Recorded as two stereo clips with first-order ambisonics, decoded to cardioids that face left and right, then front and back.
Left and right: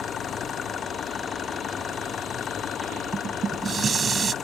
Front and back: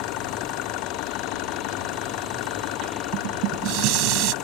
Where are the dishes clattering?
160° right.